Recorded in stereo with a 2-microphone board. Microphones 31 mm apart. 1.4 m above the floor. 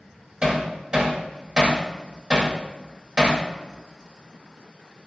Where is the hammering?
25° right (ahead or behind), 2.5 m.